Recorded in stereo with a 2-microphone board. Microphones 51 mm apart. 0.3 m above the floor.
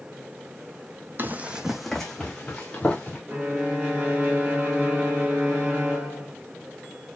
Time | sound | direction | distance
1.2 | running footsteps | 45° right (ahead or behind) | 0.6 m
3.3 | a violin | 25° right (ahead or behind) | 2.5 m